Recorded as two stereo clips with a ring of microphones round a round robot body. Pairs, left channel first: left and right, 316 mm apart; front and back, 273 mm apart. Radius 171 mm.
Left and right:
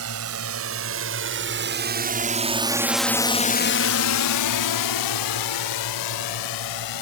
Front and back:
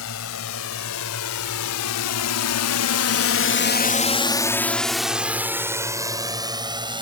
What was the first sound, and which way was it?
A drone, 45° right.